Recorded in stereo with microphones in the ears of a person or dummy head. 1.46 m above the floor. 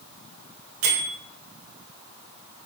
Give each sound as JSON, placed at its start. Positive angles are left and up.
{"t": 0.8, "sound": "a bell", "side_deg": -75, "distance_m": 1.0}